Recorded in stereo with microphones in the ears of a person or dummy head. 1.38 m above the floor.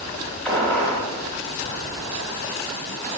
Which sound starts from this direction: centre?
A gunshot, at 0.5 s.